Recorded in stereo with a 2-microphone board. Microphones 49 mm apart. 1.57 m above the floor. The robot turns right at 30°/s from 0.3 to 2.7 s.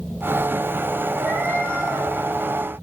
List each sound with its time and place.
1.2 s a cat meowing: 70° right (ahead or behind), 4 m; by 2.1 s 75° right (ahead or behind), 4 m